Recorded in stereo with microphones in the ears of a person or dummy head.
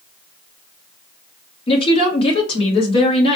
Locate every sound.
1.7 s a woman speaking: 35° left (ahead or behind), 1.3 m